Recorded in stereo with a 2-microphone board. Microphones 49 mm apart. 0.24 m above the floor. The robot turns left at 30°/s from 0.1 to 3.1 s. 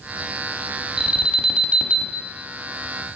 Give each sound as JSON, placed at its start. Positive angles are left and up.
{"t": 1.0, "sound": "an alarm", "side_deg": -15, "distance_m": 0.9}